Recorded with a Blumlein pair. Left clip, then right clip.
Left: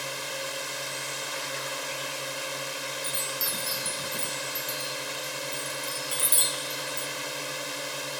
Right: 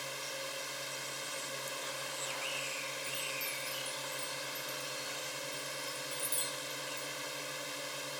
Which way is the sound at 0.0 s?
65° left.